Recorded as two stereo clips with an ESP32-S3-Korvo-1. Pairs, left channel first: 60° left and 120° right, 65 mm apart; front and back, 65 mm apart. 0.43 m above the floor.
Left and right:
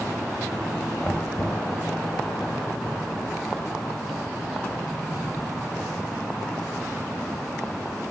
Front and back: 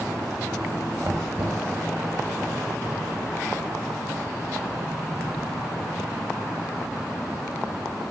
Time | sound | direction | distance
1.0 | knocking | 145° left | 2 m